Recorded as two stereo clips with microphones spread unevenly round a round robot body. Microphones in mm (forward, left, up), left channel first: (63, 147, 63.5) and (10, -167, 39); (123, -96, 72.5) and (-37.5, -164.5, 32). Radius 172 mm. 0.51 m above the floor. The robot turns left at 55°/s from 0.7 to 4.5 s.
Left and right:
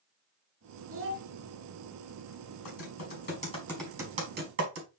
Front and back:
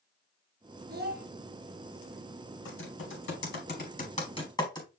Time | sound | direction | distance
0.9 | a child speaking | 145° right | 1.6 m
2.6 | typing on a keyboard | 55° left | 4.5 m